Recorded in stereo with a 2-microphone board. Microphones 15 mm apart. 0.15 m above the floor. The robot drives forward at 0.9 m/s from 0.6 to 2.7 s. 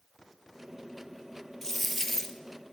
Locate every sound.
1.6 s a dropped coin: 15° left (ahead or behind), 1.5 m; by 2.4 s 25° left (ahead or behind), 0.9 m